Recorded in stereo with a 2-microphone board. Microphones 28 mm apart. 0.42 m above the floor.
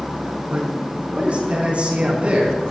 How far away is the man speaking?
About 4 m.